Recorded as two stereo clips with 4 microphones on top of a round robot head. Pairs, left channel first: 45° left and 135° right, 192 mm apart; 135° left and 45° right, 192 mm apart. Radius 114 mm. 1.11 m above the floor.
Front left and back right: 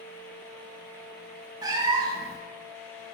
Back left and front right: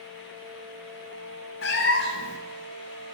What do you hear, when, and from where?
1.6 s a cat meowing: 155° left, 0.5 m